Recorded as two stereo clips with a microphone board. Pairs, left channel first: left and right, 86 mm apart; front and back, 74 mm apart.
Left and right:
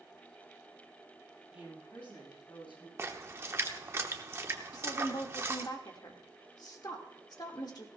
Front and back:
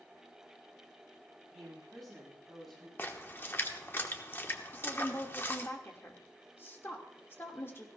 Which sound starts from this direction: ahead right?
A splash, at 3.0 s.